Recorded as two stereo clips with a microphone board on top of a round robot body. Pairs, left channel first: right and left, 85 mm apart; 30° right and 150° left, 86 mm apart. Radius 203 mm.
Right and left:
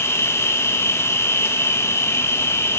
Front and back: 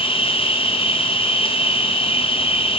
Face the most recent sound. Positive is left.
turn(degrees=-30)